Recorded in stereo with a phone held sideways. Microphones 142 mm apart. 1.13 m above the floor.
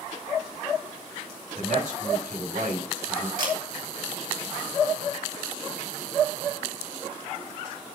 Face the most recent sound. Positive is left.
turn(degrees=-80)